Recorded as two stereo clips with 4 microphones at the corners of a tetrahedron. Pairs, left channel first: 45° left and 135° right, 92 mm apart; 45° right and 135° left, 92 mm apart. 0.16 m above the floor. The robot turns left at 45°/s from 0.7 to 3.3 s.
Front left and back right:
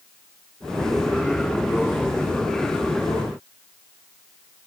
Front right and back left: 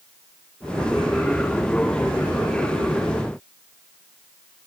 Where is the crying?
I don't hear crying.